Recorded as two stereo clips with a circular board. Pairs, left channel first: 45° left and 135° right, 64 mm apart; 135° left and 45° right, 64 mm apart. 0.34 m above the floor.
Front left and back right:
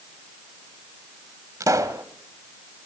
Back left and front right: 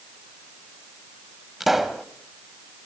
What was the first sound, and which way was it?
A pop, 130° right.